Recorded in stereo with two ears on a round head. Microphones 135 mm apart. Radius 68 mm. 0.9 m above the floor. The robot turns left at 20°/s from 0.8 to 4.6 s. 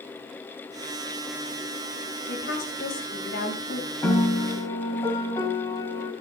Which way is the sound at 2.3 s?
90° left.